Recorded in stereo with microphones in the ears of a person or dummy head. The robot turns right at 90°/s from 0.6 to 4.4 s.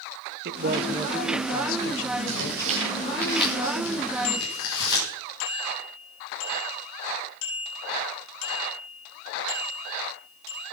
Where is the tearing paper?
75° right (ahead or behind), 6.5 m; by 5.1 s 65° left (ahead or behind), 6.5 m.